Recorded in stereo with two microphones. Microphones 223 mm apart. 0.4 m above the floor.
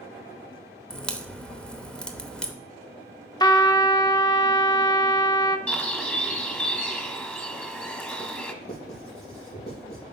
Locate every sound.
0.9 s a crack: 5° left (ahead or behind), 0.8 m
3.4 s a trumpet: 20° left (ahead or behind), 0.5 m
5.7 s a bird: 5° left (ahead or behind), 1.1 m
8.6 s writing: 30° left (ahead or behind), 4 m